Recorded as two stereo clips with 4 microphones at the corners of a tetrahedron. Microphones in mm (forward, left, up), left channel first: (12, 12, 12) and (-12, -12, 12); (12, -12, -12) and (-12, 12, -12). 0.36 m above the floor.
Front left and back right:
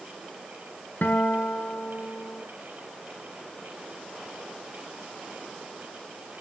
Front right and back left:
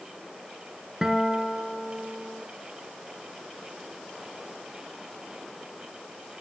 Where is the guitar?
65° left, 1.9 m.